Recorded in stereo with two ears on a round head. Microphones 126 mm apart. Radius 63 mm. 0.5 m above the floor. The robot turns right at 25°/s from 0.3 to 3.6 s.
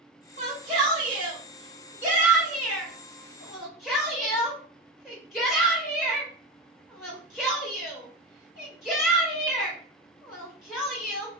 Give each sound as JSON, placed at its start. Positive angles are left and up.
{"t": 0.4, "sound": "a shout", "side_deg": -50, "distance_m": 1.8}